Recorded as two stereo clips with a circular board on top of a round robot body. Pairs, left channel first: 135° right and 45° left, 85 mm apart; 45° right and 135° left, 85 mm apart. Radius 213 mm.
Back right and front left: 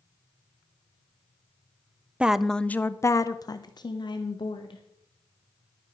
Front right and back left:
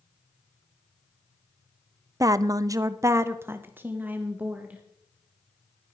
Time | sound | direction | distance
2.2 | a woman speaking | 115° left | 0.7 m